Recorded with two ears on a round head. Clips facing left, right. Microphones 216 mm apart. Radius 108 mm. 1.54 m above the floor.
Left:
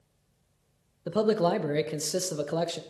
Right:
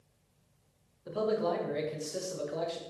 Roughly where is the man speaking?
Left.